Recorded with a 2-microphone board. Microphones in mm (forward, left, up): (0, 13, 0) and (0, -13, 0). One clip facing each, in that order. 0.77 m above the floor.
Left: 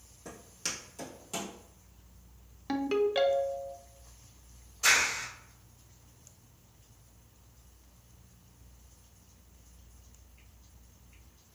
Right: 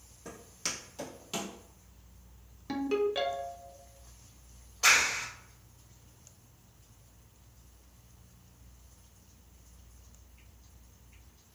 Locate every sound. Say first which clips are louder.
0.2 s footsteps: even; 5° right (ahead or behind), 1.7 m; by 1.5 s 45° right (ahead or behind), 1.4 m
2.7 s a ringtone: left 2 dB; 15° left (ahead or behind), 0.6 m
4.8 s a clap: right 1 dB; 50° right (ahead or behind), 1.5 m